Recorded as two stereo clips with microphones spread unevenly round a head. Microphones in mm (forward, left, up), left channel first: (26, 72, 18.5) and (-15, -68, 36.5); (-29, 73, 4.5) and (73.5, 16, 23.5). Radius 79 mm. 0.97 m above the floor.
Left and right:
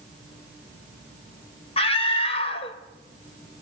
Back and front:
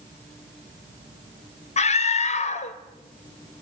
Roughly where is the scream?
Behind left.